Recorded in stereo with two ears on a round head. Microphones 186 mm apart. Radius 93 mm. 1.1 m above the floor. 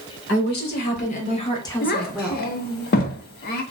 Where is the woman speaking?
55° left (ahead or behind), 1.3 m; by 2.5 s 20° right (ahead or behind), 0.8 m.